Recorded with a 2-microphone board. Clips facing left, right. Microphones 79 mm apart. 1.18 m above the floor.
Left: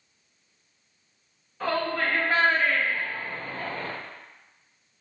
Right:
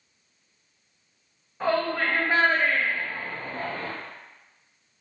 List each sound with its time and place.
1.6 s a shout: 20° right (ahead or behind), 1.4 m; by 3.9 s 15° right (ahead or behind), 0.6 m